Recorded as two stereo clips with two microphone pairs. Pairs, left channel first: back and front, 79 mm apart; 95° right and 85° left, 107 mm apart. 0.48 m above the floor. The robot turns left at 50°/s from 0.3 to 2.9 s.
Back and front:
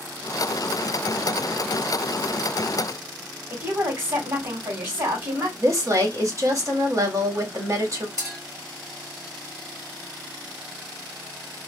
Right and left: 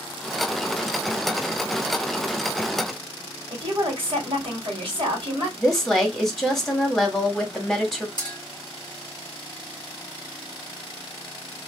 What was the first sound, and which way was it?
A woman speaking, 55° left.